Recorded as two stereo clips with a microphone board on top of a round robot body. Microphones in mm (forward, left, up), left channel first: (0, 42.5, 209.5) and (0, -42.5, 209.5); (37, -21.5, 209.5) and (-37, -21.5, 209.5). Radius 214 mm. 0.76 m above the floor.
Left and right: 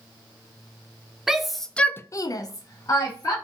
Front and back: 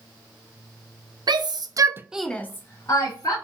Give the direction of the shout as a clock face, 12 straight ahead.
6 o'clock.